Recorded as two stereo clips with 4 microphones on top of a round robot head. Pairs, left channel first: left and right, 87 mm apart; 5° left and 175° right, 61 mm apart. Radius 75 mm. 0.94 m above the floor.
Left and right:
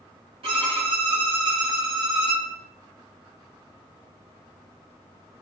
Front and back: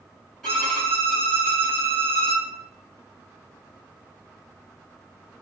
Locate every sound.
0.4 s a violin: 85° right, 3.5 m